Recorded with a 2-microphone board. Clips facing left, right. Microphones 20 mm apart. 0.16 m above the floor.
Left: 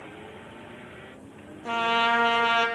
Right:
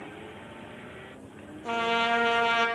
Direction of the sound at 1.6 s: 5° left (ahead or behind).